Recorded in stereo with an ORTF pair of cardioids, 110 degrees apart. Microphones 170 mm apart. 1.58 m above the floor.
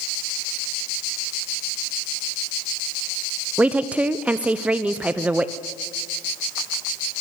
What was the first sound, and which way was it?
A woman speaking, 5° right.